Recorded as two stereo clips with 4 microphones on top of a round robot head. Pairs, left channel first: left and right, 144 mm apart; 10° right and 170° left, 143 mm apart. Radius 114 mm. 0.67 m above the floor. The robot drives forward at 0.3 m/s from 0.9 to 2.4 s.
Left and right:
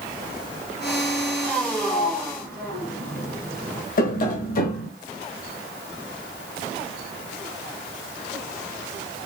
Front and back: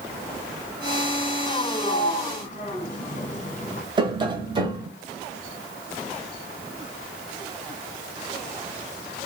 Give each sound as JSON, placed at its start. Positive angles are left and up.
{"t": 1.8, "sound": "a sliding door", "azimuth_deg": 10, "distance_m": 0.8}
{"t": 4.0, "sound": "tapping", "azimuth_deg": 110, "distance_m": 1.1}